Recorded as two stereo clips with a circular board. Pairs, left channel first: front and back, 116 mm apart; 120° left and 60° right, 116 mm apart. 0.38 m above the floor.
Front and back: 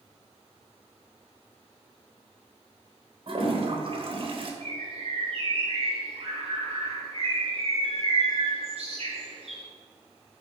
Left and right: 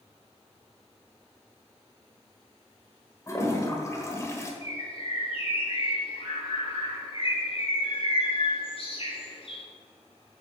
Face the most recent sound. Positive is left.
turn(degrees=155)